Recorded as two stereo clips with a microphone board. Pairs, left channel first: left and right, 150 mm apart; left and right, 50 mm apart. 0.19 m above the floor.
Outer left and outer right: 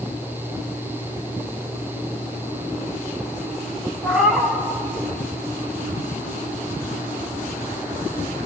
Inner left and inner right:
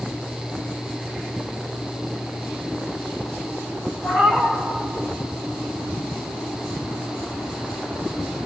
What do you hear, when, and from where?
4.0 s a cat meowing: 5° right (ahead or behind), 4 m